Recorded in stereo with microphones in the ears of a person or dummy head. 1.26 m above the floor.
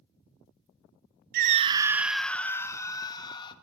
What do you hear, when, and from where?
1.3 s a scream: 55° right (ahead or behind), 0.6 m; by 3.5 s 25° left (ahead or behind), 1.8 m